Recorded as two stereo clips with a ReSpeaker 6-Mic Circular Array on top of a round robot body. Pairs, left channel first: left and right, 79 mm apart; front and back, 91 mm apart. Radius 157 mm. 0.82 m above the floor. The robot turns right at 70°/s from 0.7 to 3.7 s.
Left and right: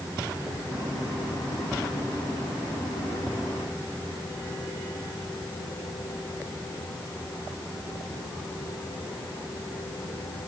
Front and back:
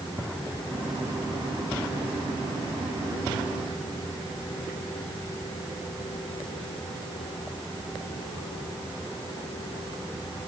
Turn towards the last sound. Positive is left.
No sound to turn to.